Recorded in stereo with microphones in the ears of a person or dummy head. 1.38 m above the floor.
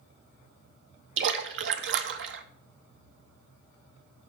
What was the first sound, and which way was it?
A splash, 70° right (ahead or behind).